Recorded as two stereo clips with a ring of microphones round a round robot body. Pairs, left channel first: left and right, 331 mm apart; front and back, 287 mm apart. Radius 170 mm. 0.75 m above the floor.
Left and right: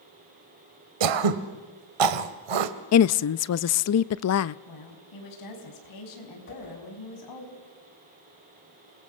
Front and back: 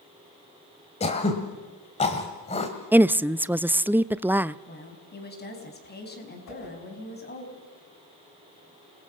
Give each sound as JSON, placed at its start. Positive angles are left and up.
{"t": 1.0, "sound": "throat clearing", "azimuth_deg": -75, "distance_m": 1.3}
{"t": 2.9, "sound": "a woman speaking", "azimuth_deg": 100, "distance_m": 0.5}
{"t": 4.7, "sound": "a woman speaking", "azimuth_deg": 60, "distance_m": 5.5}
{"t": 6.5, "sound": "a whoosh", "azimuth_deg": 30, "distance_m": 6.0}